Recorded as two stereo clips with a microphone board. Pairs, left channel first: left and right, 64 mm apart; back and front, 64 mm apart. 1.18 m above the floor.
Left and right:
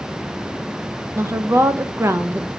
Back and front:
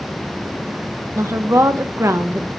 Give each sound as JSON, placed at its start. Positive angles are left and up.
{"t": 1.1, "sound": "a woman speaking", "azimuth_deg": -40, "distance_m": 0.8}